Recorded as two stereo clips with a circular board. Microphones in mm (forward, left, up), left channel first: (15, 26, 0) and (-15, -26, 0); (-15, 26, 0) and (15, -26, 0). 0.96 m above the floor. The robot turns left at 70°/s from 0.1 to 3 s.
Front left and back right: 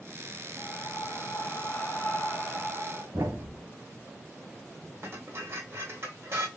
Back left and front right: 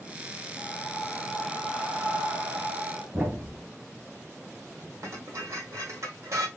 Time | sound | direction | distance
0.6 | breathing | 90° left | 2.5 m
3.1 | a thud | 110° right | 1.7 m
5.0 | dishes clattering | 80° right | 2.5 m